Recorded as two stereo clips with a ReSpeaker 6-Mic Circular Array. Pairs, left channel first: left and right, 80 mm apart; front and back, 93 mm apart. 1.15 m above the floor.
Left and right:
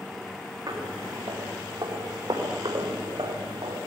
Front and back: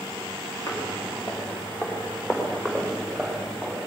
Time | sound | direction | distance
0.7 | footsteps | 55° right | 6.5 m